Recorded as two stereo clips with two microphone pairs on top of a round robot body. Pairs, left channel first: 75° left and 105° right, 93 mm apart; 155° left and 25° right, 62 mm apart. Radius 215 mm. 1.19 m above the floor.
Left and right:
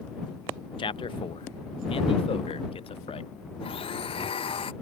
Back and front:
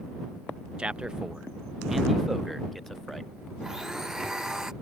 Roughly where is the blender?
Ahead left.